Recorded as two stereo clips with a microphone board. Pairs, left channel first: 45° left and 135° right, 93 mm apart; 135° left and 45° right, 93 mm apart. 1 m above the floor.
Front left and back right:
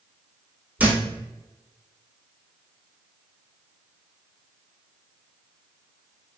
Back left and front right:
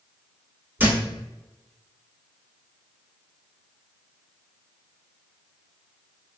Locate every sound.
0.8 s a thud: 80° right, 0.7 m